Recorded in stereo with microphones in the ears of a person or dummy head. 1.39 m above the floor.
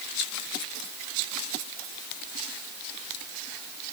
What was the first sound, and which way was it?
Only background noise.